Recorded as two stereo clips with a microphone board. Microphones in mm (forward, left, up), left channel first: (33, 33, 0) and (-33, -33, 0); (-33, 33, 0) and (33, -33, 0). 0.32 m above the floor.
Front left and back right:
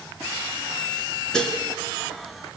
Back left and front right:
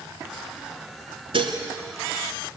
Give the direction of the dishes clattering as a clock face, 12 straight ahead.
1 o'clock.